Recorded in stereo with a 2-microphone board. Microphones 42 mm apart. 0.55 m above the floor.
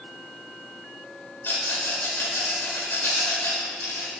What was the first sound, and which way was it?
A rattle, 65° left (ahead or behind).